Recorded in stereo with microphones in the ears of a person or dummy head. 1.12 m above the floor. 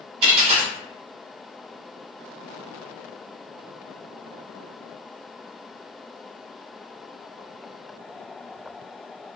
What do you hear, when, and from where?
0.2 s a dropped coin: 35° right (ahead or behind), 1.0 m